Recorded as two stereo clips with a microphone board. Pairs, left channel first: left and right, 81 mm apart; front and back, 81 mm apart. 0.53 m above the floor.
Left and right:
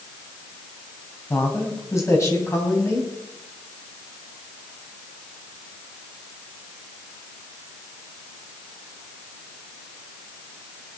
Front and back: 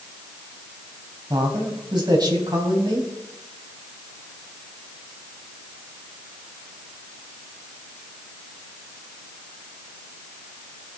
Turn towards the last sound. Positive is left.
turn(degrees=145)